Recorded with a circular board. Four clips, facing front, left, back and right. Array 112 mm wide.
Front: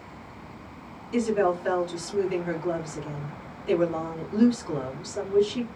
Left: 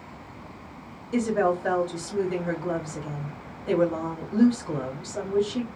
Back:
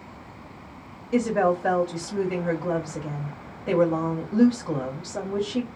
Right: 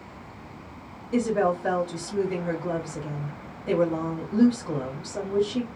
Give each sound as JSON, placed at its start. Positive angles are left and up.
{"t": 1.1, "sound": "a woman speaking", "azimuth_deg": -170, "distance_m": 1.8}